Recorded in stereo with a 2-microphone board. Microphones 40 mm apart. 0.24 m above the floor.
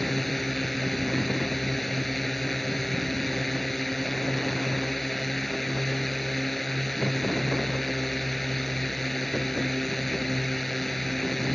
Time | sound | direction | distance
0.0 | a drone | 5° left (ahead or behind) | ?